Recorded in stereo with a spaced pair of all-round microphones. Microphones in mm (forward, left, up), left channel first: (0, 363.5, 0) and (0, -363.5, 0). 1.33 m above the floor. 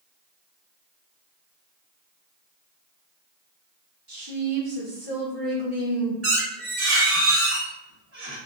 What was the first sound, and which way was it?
A woman speaking, 30° right (ahead or behind).